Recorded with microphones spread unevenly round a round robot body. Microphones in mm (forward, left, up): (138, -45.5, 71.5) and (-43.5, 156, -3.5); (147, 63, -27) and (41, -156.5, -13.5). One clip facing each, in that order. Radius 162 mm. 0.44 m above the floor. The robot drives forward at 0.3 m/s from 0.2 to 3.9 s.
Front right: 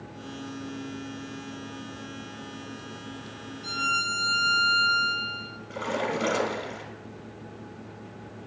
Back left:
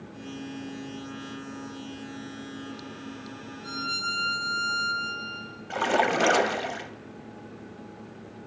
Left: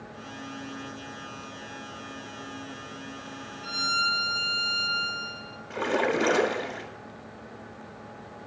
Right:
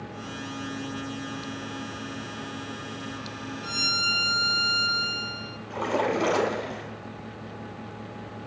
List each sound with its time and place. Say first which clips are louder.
3.6 s a violin: back left 1 dB, right 4 dB; 85° right, 1.2 m; by 5.6 s 90° right, 1.2 m
5.7 s a splash: back left 3 dB, even; 145° left, 0.5 m